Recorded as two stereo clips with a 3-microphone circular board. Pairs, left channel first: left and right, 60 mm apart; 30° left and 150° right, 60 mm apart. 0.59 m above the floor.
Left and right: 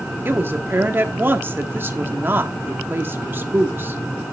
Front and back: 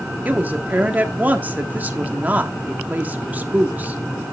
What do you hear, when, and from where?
0.2 s a woman speaking: 105° right, 1.1 m